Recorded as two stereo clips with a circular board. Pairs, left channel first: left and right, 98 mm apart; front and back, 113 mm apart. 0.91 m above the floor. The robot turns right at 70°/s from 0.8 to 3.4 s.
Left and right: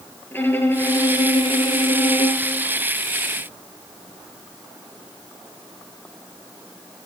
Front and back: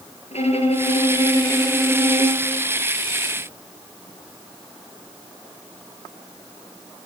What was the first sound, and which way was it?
A violin, 20° left.